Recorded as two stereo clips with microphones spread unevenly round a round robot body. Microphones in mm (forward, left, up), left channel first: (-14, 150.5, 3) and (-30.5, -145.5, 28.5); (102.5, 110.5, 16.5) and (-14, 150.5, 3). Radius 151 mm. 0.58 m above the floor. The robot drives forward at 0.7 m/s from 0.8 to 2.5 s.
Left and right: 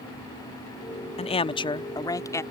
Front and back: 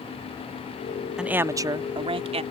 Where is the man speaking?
100° left; by 2.4 s 165° left.